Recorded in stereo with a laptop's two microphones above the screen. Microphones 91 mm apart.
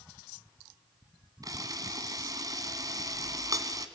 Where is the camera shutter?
40° right (ahead or behind), 1.7 m.